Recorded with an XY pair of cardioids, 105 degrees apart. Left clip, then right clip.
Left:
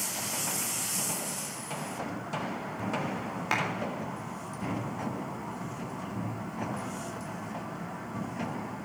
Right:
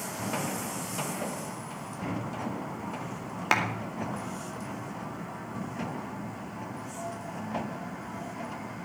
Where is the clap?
45° right, 2.5 m.